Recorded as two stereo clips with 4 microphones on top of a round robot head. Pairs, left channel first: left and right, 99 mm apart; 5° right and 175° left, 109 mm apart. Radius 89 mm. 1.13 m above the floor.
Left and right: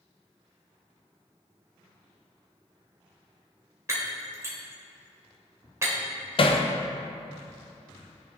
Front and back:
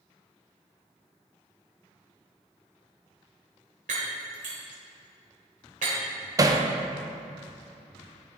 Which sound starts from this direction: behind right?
Breaking glass, at 3.9 s.